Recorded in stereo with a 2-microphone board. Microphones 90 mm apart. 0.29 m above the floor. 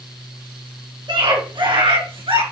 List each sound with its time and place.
1.1 s a scream: 60° right (ahead or behind), 3.5 m; by 2.4 s 75° right (ahead or behind), 4.5 m